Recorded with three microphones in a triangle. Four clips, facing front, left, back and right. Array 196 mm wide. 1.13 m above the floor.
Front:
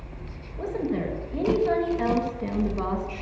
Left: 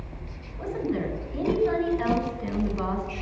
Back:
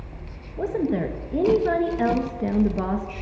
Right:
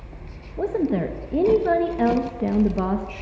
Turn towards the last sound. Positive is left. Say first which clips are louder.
# right 6 dB, back 4 dB
turn(degrees=-110)